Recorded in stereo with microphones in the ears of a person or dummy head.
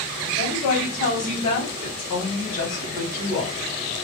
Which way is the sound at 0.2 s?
45° left (ahead or behind).